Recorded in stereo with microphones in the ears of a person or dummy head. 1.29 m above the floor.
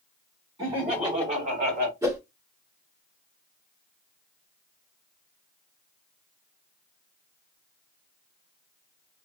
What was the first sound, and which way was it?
Laughter, 25° right (ahead or behind).